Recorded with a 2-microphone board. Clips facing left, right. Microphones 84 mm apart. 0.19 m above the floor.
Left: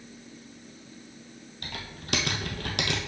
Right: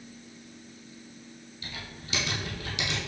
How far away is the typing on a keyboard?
About 1.3 m.